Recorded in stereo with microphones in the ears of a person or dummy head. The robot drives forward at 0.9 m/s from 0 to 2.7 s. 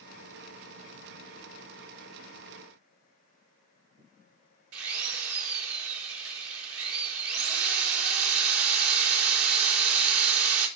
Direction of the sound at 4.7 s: 85° right.